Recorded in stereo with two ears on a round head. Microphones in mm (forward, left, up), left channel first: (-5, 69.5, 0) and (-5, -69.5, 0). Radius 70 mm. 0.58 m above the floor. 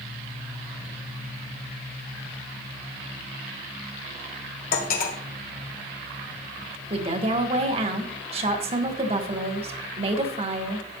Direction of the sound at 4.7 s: 55° left (ahead or behind).